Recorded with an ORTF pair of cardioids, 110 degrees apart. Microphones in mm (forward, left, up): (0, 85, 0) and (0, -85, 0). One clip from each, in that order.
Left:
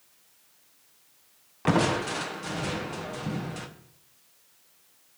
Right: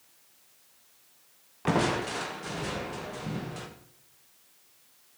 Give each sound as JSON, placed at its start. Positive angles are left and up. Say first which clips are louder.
{"t": 1.6, "sound": "crushing", "louder": "left 2 dB", "azimuth_deg": 20, "distance_m": 1.6}